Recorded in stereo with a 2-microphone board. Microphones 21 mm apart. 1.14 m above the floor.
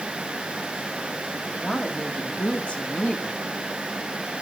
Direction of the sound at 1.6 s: 50° left (ahead or behind).